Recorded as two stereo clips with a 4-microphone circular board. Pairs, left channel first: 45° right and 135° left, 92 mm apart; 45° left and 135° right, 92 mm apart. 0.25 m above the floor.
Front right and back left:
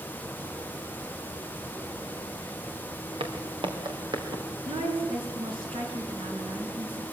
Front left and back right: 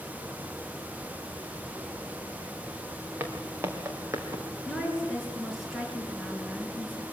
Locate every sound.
3.2 s footsteps: 160° left, 3.5 m; by 4.4 s 170° left, 3.5 m
4.7 s a woman speaking: 135° left, 4.5 m